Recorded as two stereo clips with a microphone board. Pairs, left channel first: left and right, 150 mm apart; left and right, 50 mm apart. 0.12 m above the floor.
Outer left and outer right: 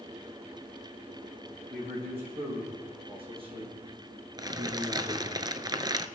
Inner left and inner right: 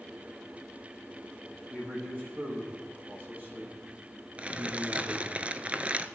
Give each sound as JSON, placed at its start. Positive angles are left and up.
{"t": 1.7, "sound": "a man speaking", "side_deg": -40, "distance_m": 7.5}
{"t": 4.4, "sound": "crumpling", "side_deg": -30, "distance_m": 0.6}